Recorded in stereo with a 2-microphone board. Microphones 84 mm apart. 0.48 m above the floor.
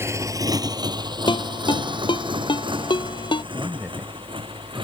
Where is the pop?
No pop in this recording.